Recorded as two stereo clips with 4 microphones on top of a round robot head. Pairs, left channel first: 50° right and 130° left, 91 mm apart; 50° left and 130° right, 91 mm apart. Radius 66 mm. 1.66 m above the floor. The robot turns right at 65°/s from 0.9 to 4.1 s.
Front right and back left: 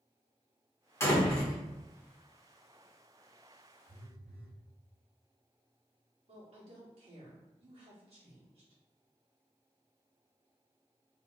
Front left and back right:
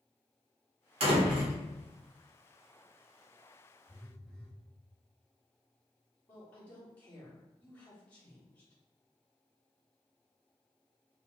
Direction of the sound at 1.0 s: 110° right.